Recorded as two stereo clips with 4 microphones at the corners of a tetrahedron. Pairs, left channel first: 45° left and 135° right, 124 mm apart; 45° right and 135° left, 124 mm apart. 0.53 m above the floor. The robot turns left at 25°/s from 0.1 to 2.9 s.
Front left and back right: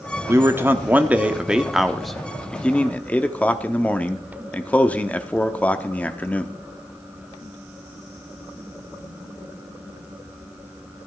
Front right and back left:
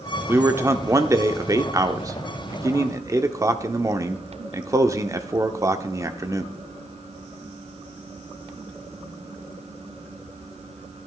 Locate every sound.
0.3 s a man speaking: straight behind, 0.8 m; by 6.5 s 115° left, 0.8 m